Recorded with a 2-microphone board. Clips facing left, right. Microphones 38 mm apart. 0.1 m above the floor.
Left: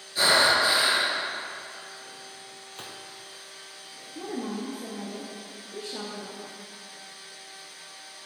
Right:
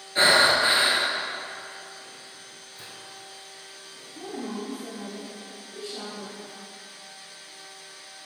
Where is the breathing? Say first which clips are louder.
Right 2 dB; 40° right (ahead or behind), 1.4 m.